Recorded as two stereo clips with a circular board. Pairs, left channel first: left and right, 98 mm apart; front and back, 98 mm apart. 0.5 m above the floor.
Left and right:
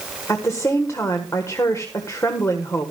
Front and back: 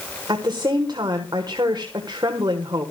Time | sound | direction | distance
0.3 | a woman speaking | 145° left | 1.4 m